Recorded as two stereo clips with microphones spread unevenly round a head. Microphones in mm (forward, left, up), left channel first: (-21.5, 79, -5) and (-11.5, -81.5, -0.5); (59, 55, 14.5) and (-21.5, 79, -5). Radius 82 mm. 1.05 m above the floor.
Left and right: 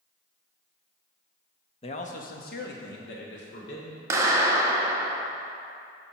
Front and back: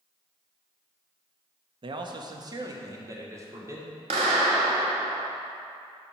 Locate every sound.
1.8 s a man speaking: 150° left, 0.9 m; by 4.0 s 105° left, 3 m
4.1 s a clap: 160° right, 1.0 m